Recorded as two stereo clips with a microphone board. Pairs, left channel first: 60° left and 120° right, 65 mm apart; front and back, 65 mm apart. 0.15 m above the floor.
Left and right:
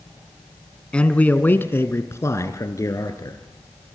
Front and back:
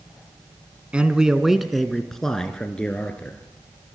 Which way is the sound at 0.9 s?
120° left.